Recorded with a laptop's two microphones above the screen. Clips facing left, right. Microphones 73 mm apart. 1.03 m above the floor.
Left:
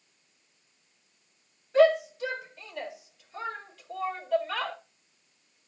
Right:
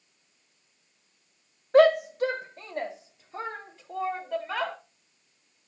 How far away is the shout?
About 1.7 m.